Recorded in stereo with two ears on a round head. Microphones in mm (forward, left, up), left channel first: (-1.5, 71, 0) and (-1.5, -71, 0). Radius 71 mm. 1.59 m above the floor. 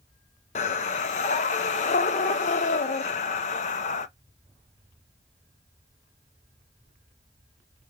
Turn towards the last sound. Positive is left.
turn(degrees=45)  # may be behind; listen again after turning